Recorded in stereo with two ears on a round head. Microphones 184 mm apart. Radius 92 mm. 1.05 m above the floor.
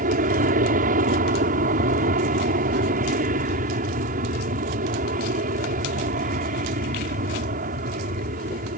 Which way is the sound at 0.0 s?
40° right (ahead or behind).